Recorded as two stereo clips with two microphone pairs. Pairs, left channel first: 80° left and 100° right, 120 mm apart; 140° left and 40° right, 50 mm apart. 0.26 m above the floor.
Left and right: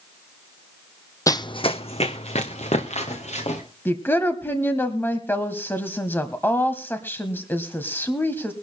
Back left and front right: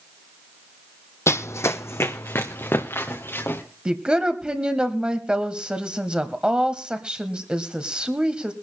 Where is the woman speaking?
20° left, 1.2 m.